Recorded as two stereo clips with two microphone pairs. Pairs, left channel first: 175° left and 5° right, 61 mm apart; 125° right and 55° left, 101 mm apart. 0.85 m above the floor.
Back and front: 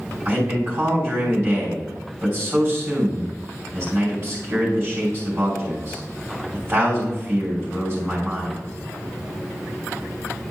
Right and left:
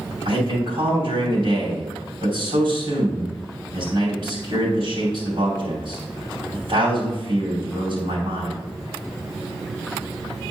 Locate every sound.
0.2 s a man speaking: 50° left, 3 m